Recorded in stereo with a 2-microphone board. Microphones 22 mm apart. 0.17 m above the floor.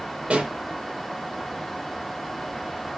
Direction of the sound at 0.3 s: 50° right (ahead or behind).